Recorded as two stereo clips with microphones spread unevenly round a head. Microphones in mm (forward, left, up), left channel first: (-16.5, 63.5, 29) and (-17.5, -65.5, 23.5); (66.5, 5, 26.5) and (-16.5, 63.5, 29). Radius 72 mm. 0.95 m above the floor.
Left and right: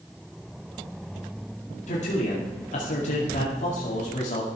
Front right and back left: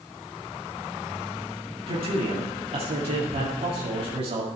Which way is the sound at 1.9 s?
120° left.